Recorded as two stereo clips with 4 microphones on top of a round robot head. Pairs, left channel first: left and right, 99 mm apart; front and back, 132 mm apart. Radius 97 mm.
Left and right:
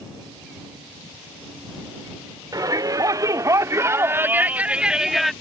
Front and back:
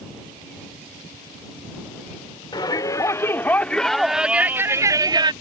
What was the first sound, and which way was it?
A shout, 50° right.